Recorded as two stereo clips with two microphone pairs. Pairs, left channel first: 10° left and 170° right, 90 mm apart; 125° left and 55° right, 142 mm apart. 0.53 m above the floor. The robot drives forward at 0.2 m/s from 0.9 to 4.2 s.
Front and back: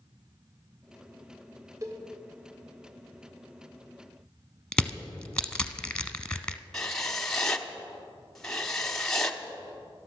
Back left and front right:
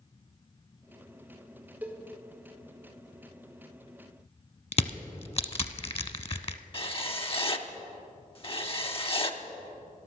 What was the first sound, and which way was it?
A cowbell, 130° right.